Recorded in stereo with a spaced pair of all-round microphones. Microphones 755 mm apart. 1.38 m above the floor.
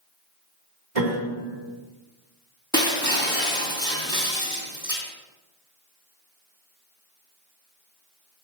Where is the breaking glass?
5° left (ahead or behind), 2.5 m.